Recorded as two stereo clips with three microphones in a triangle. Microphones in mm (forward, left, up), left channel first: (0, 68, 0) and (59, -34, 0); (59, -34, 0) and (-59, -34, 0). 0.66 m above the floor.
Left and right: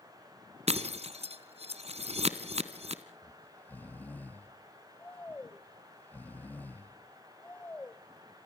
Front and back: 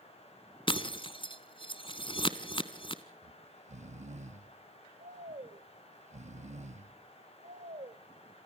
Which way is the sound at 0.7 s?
40° right.